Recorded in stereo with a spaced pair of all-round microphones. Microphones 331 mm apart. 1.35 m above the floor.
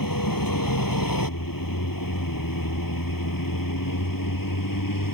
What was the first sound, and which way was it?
A vehicle, 85° left.